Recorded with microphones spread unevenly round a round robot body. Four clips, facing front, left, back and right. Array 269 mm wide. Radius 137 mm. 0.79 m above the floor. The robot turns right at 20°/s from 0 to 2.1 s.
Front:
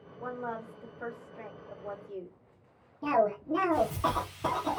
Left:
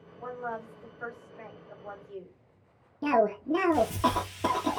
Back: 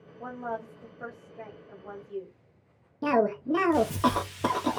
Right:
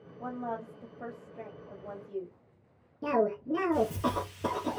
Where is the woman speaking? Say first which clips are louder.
Even, back 2 dB; 115° right, 1.9 m; by 2.4 s 80° right, 1.9 m.